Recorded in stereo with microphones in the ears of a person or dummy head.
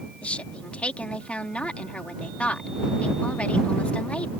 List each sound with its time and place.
0.2 s a woman speaking: 5° left (ahead or behind)